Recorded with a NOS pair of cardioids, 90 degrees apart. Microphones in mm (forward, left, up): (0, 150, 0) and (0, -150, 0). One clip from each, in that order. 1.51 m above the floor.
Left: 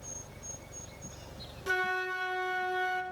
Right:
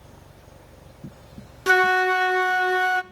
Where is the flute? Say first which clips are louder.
Right 13 dB; 55° right, 0.5 m.